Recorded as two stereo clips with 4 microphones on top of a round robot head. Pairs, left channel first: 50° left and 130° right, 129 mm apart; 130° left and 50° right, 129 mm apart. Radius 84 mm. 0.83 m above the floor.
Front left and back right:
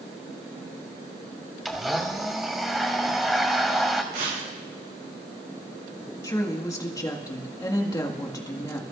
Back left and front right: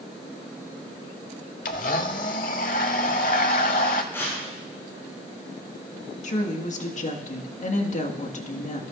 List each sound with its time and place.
1.6 s a blender: 145° left, 0.8 m
4.1 s tearing paper: 160° right, 8 m
6.2 s a woman speaking: 115° left, 1.7 m